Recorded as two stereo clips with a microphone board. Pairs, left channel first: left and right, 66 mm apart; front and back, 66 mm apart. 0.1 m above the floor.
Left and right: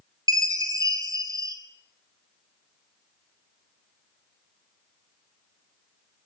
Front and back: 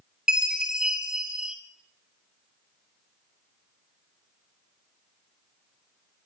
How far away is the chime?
About 2 m.